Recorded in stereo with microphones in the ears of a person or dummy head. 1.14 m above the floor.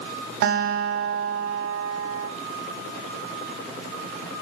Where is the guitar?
50° right (ahead or behind), 1.8 m.